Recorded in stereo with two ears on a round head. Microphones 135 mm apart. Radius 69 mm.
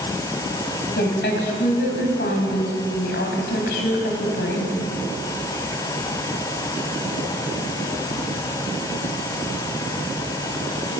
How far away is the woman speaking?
About 3 m.